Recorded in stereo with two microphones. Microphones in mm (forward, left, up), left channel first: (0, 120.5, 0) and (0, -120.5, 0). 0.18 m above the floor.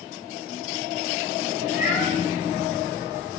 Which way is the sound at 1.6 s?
35° left (ahead or behind).